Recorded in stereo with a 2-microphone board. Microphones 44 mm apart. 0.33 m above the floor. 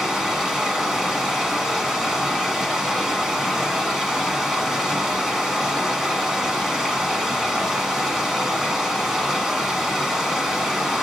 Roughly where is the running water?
Centre.